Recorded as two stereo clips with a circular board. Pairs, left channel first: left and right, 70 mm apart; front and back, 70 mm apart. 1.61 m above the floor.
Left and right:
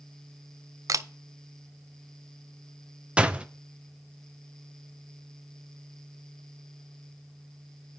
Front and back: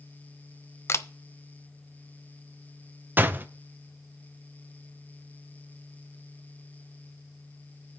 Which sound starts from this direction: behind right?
A door slam, at 3.2 s.